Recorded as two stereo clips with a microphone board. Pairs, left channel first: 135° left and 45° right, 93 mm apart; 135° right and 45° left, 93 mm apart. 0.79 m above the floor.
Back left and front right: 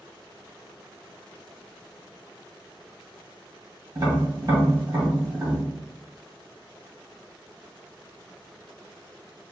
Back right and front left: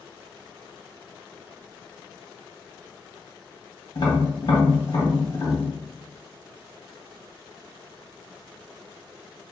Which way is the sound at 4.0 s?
100° right.